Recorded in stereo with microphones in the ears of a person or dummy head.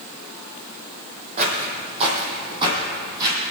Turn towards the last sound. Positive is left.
turn(degrees=-20)  # may be behind; listen again after turning